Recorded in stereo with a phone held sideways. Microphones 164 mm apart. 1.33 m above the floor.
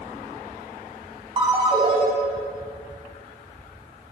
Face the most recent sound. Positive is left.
turn(degrees=-35)  # may be behind; listen again after turning